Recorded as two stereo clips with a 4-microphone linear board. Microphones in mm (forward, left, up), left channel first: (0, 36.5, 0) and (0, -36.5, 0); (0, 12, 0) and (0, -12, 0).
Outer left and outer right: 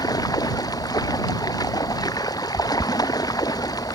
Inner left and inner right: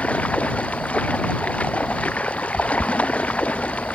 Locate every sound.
0.0 s running water: 55° left (ahead or behind)